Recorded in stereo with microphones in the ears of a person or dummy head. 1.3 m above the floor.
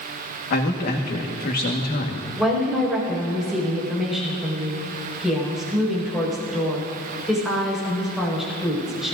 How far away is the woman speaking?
About 5.5 m.